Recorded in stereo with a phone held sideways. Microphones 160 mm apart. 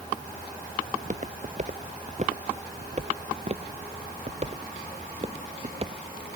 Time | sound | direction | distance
0.9 | footsteps | 50° right (ahead or behind) | ?